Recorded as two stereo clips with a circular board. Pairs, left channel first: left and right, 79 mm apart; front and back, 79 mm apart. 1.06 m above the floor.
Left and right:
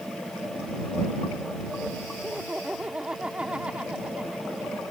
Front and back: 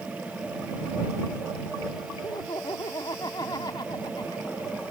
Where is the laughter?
15° right.